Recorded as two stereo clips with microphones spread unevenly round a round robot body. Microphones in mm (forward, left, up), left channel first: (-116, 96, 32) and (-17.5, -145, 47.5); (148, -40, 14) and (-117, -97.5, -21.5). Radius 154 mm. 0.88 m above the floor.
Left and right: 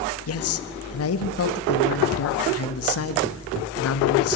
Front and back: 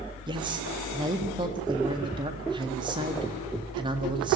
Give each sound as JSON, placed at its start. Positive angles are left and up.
{"t": 0.3, "sound": "a man speaking", "azimuth_deg": 120, "distance_m": 1.5}